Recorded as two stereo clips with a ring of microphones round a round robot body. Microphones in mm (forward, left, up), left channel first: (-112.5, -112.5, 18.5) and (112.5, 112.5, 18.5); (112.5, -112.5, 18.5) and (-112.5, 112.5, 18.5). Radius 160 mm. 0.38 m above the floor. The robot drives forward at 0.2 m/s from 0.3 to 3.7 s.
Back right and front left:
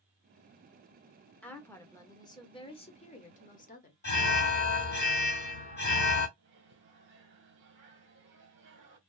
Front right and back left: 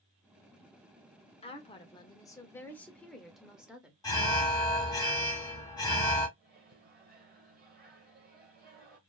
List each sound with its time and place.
1.4 s a woman speaking: 60° right, 0.9 m; by 3.9 s 140° right, 0.9 m
4.0 s an alarm: 115° right, 2 m
6.4 s a microwave: 85° left, 1.3 m